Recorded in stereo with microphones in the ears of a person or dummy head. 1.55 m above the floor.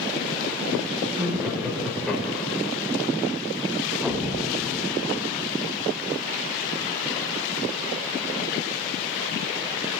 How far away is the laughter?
About 2.5 m.